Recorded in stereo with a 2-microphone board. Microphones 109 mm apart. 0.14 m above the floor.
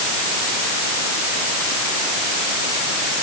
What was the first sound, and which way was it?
Only background noise.